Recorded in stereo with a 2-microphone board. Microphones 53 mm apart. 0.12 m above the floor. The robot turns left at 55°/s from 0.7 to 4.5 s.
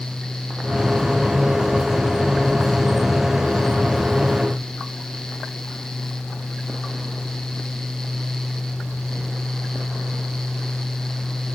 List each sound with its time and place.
Only background noise.